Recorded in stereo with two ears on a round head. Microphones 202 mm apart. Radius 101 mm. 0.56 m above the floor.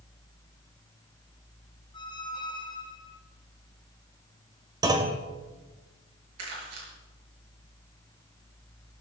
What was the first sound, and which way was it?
A squeak, 20° left (ahead or behind).